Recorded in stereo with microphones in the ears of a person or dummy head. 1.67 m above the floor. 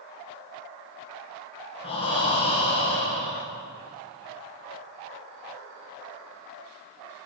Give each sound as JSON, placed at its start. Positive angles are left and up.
{"t": 1.8, "sound": "breathing", "side_deg": 35, "distance_m": 0.9}